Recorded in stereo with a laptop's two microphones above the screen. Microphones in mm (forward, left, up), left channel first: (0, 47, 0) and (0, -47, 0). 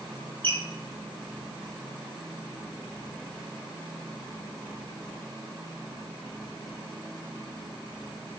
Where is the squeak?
60° right (ahead or behind), 0.6 m.